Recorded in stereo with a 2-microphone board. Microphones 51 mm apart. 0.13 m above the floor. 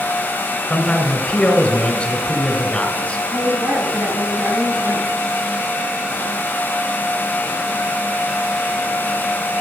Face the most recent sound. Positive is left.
turn(degrees=-50)  # may be behind; listen again after turning